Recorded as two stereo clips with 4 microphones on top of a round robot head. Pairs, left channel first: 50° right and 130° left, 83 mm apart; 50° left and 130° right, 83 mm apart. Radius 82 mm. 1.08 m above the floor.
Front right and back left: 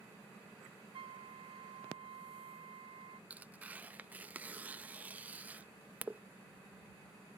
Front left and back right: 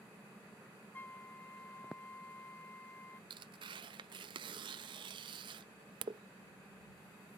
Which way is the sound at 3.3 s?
160° right.